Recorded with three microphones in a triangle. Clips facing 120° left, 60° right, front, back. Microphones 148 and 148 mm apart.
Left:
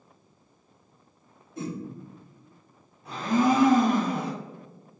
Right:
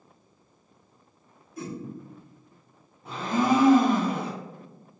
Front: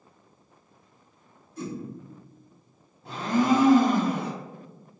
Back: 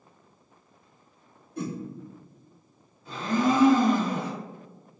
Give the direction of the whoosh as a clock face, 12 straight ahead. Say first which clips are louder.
Left 2 dB, back 2 dB; 6 o'clock.